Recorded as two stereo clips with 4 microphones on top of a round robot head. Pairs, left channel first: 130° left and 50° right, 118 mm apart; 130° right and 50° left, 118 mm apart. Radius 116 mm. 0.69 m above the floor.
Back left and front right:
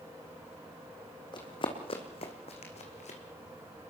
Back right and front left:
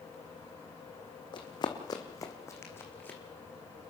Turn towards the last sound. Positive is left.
turn(degrees=155)